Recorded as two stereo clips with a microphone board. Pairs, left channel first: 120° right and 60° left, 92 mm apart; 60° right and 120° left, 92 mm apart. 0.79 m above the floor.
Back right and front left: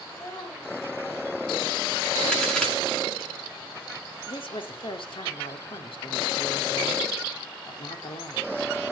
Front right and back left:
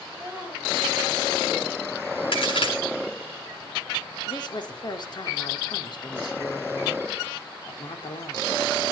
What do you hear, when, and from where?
0.1 s a child speaking: 160° right, 6 m; by 2.2 s 165° right, 9 m
2.3 s a crack: 40° right, 7 m
4.3 s a woman speaking: 95° right, 1.7 m